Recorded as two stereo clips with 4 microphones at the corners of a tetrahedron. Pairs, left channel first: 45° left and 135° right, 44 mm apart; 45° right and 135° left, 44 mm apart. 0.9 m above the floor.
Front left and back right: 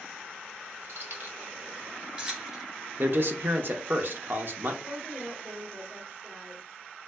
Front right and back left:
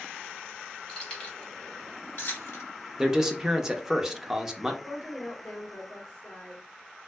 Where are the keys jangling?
115° right, 1.2 m; by 2.7 s 55° right, 1.1 m.